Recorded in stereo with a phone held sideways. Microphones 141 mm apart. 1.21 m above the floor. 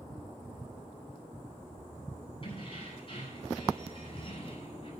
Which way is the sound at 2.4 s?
40° left (ahead or behind).